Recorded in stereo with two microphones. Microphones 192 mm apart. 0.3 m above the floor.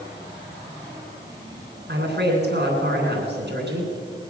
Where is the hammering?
I don't hear hammering.